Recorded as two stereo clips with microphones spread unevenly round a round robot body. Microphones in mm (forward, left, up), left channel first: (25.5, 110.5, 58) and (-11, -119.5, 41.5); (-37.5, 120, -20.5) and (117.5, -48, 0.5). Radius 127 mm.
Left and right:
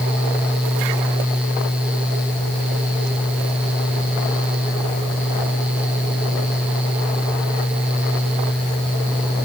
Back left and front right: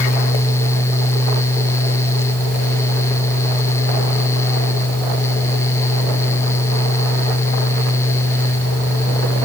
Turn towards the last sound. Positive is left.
No sound to turn to.